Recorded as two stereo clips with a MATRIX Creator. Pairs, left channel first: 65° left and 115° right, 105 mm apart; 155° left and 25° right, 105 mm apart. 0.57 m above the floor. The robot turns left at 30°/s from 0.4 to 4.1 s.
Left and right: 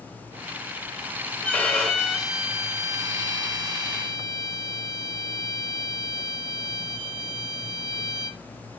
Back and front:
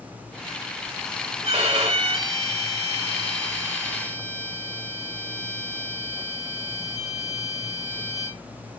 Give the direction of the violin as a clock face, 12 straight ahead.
12 o'clock.